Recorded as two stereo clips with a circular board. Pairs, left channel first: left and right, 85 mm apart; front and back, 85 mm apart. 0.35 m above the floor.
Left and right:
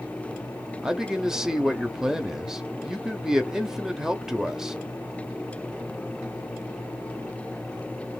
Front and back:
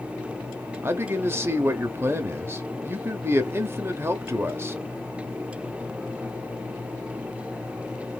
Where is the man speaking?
170° right, 0.9 m.